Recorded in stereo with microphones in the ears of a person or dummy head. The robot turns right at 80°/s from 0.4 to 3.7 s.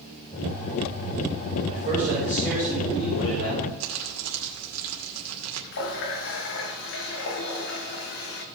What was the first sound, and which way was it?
A man speaking, 55° right.